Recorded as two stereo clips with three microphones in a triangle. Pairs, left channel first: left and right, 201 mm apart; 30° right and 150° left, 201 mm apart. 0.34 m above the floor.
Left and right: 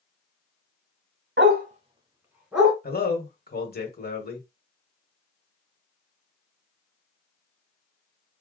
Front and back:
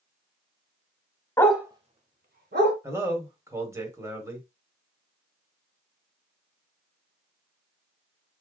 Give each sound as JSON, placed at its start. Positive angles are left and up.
{"t": 1.4, "sound": "a dog barking", "azimuth_deg": -105, "distance_m": 0.6}
{"t": 2.8, "sound": "a man speaking", "azimuth_deg": 80, "distance_m": 1.4}